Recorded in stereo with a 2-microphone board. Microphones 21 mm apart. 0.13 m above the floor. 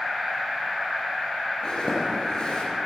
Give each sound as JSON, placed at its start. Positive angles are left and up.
{"t": 1.6, "sound": "a zipper", "side_deg": 45, "distance_m": 2.0}